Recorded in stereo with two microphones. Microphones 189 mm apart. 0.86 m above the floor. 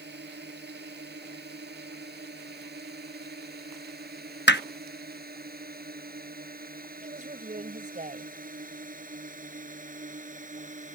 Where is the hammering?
70° left (ahead or behind).